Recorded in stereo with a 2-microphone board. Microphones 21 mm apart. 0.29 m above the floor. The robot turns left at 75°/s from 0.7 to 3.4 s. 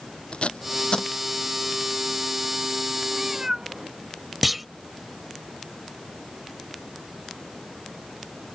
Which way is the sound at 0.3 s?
70° left (ahead or behind).